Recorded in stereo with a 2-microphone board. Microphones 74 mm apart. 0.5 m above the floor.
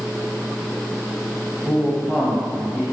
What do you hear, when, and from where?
1.6 s a man speaking: 10° right (ahead or behind), 3 m